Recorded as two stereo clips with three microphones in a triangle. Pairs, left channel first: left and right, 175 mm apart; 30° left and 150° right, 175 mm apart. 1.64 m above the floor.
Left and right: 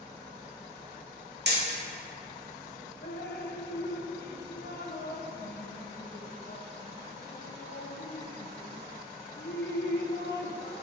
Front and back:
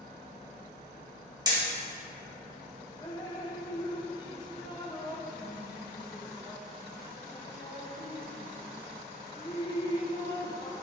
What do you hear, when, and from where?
1.5 s hammering: 80° right, 2 m
3.0 s dripping: 95° left, 1.0 m